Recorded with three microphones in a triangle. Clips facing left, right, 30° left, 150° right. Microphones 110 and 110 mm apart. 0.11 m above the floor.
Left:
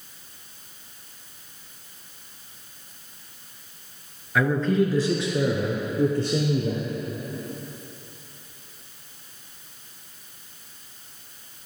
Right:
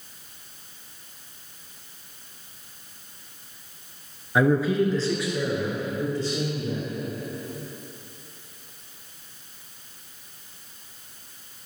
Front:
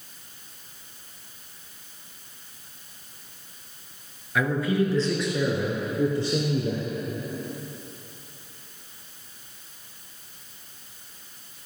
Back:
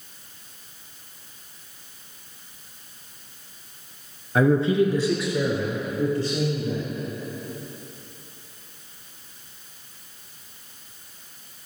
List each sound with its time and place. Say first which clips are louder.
4.3 s a man speaking: right 1 dB, back 5 dB; 140° right, 1.3 m; by 6.8 s 90° left, 2.5 m